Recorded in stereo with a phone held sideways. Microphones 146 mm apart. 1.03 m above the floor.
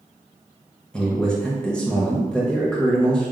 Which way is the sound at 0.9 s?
5° left (ahead or behind).